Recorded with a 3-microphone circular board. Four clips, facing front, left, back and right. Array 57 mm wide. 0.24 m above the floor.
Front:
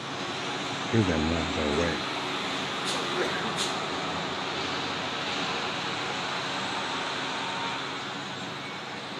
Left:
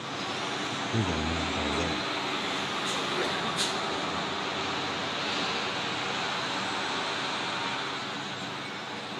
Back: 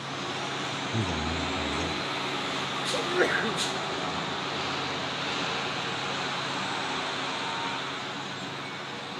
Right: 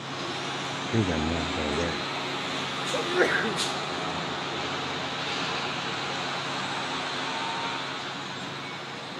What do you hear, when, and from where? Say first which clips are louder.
0.9 s a man speaking: right 5 dB, front 8 dB; 25° right; by 2.0 s 15° right
2.9 s a sneeze: right 10 dB, back 5 dB; 120° right